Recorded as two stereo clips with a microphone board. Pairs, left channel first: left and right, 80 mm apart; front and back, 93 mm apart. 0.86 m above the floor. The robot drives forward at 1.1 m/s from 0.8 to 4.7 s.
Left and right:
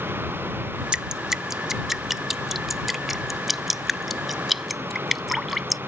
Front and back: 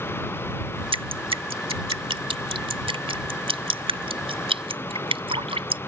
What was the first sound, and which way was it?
Dripping, 165° right.